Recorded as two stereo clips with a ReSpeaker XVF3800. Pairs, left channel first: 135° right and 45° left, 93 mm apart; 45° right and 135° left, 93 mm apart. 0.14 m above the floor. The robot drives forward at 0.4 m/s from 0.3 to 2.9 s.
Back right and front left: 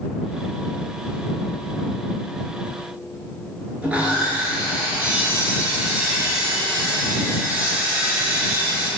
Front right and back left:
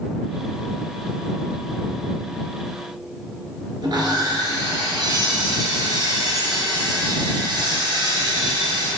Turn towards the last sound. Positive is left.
turn(degrees=120)